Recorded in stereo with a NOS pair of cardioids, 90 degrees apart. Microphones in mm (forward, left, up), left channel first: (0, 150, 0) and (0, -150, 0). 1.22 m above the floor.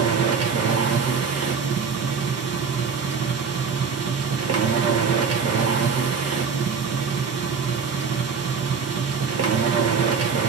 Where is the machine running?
55° right, 1.0 m.